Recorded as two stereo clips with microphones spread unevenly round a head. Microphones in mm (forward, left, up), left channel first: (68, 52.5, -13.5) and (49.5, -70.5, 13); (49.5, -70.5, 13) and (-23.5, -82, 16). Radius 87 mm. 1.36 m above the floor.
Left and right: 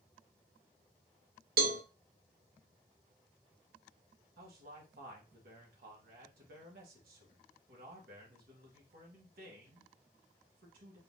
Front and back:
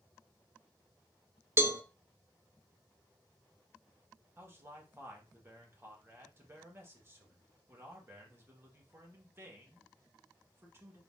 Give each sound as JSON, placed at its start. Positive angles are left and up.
{"t": 1.6, "sound": "a cowbell", "azimuth_deg": -115, "distance_m": 0.9}
{"t": 4.4, "sound": "a man speaking", "azimuth_deg": -115, "distance_m": 1.7}